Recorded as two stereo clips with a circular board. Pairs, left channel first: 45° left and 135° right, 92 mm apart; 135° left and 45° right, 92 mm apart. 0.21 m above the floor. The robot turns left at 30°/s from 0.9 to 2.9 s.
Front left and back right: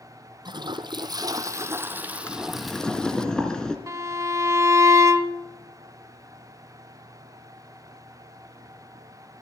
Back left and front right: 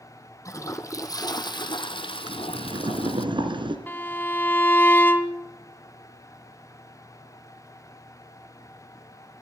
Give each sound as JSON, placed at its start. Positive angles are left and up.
{"t": 0.5, "sound": "a toilet flushing", "azimuth_deg": -170, "distance_m": 1.2}
{"t": 2.3, "sound": "boiling", "azimuth_deg": -15, "distance_m": 2.5}
{"t": 3.9, "sound": "a violin", "azimuth_deg": -170, "distance_m": 1.1}